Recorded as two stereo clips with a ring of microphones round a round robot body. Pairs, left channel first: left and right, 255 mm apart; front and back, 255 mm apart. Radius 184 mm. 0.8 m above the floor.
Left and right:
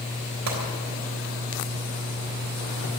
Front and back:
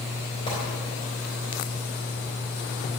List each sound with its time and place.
0.5 s a gunshot: 75° right, 3.5 m